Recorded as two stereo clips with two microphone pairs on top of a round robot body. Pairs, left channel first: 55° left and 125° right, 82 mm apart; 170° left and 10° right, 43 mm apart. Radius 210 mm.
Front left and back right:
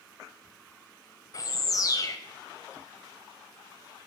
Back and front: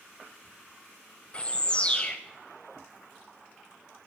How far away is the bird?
About 0.8 m.